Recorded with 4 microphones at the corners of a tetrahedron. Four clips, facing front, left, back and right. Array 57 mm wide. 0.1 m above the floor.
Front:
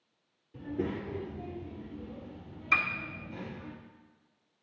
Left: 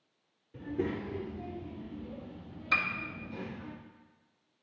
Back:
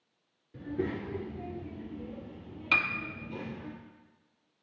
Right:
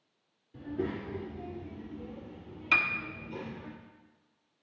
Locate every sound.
0.5 s a child speaking: 145° left, 1.1 m; by 3.7 s 150° right, 2.5 m
2.7 s a piano: 155° right, 0.8 m